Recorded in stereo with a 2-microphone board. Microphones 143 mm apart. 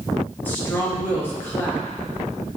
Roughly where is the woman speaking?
Centre.